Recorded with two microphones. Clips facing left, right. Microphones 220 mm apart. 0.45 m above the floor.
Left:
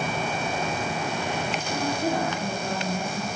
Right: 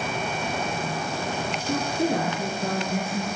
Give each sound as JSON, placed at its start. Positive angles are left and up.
{"t": 1.7, "sound": "a woman speaking", "side_deg": -65, "distance_m": 8.5}